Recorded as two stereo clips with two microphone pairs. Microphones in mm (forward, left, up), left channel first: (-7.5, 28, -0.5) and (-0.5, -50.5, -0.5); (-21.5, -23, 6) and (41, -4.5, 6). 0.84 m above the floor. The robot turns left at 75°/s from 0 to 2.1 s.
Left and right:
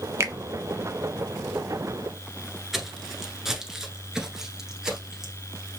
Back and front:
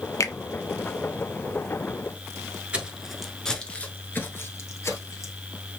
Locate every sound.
0.2 s a finger snap: 135° right, 0.5 m; by 0.3 s 145° right, 0.5 m
2.7 s footsteps: 10° right, 0.8 m; by 5.3 s 165° right, 1.3 m